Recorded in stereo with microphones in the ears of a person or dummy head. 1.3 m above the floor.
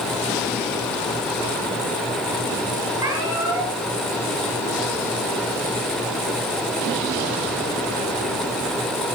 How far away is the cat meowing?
About 5 m.